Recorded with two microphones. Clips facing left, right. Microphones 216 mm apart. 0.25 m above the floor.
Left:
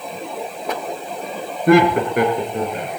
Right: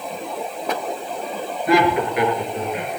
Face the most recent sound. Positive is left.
turn(degrees=40)  # may be behind; listen again after turning